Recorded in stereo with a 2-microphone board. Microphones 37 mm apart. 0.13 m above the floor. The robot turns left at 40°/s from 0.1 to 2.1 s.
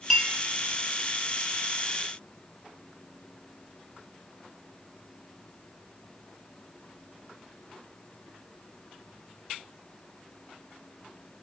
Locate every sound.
0.1 s a clink: centre (ahead or behind), 1.0 m; by 0.3 s 5° left (ahead or behind), 1.0 m